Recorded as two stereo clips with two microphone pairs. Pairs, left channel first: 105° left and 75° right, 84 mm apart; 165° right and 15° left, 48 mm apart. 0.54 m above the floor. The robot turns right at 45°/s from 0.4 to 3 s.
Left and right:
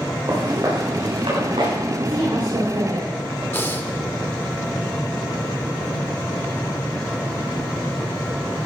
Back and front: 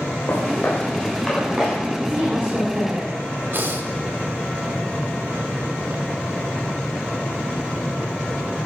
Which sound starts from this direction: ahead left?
Breathing, at 3.5 s.